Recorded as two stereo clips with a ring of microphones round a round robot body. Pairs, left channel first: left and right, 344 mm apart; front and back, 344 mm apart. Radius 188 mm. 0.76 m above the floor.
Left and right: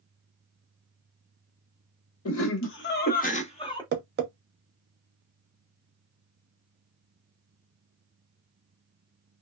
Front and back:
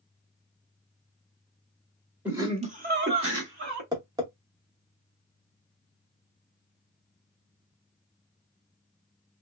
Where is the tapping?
110° right, 0.7 m.